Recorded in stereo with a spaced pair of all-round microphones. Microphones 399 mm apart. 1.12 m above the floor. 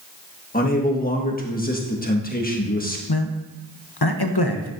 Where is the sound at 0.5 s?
20° left (ahead or behind), 1.5 m.